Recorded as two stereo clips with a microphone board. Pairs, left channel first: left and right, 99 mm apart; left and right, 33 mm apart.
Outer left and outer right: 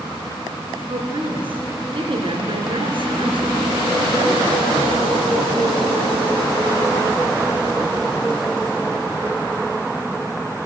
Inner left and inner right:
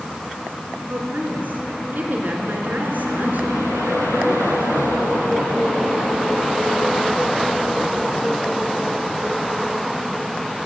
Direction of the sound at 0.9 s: 65° right (ahead or behind).